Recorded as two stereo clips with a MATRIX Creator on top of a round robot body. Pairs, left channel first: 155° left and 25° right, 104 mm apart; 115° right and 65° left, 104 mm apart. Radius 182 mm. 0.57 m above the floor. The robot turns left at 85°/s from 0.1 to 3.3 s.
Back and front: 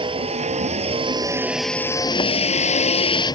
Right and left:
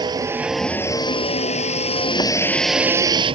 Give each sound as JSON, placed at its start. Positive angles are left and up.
{"t": 0.0, "sound": "a vehicle", "azimuth_deg": 20}